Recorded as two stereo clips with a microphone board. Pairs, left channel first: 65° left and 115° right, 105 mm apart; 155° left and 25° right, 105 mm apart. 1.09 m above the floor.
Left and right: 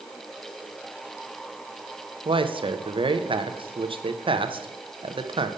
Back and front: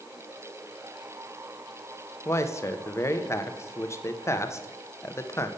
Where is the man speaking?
140° right, 0.6 m.